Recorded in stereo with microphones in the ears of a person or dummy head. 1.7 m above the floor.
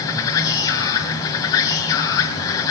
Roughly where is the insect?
Centre.